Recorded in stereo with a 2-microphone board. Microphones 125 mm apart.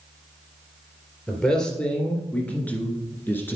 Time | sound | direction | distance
1.3 | a man speaking | 5° left (ahead or behind) | 2 m